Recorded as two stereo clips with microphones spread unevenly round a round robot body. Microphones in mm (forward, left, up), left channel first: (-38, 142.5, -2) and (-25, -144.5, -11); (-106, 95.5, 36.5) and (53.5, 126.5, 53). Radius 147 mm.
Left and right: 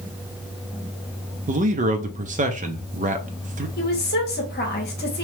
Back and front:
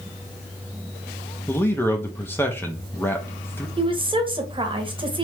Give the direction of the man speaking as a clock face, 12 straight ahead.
4 o'clock.